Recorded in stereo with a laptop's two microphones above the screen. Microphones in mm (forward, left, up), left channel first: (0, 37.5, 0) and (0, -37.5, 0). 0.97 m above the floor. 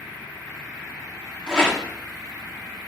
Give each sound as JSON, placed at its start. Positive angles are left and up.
{"t": 1.5, "sound": "a rattle", "side_deg": 15, "distance_m": 1.8}